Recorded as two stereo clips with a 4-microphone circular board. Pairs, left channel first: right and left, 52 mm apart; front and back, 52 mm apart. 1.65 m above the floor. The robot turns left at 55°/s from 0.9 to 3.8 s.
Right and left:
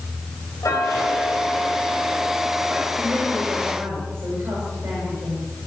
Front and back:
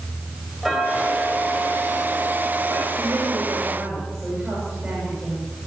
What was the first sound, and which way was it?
Ticking, 95° right.